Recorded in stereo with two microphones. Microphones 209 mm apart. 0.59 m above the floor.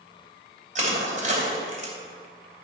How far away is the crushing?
About 2.5 m.